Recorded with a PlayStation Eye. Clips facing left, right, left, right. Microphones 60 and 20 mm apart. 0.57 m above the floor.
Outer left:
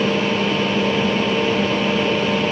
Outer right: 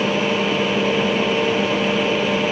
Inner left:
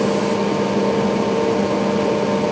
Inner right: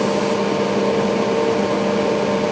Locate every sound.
Only background noise.